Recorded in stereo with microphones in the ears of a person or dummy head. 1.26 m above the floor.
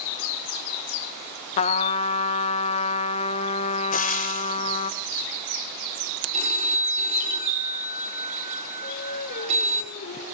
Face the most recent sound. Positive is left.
turn(degrees=50)  # may be behind; listen again after turning